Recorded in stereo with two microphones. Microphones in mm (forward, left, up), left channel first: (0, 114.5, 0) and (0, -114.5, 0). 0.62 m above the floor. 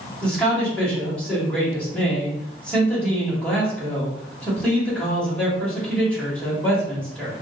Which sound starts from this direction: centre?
A man speaking, at 0.2 s.